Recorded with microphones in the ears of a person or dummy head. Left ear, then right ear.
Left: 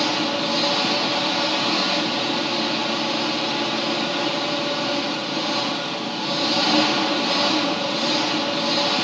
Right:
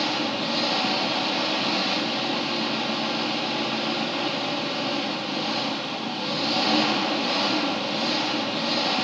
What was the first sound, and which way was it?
An engine running, 10° right (ahead or behind).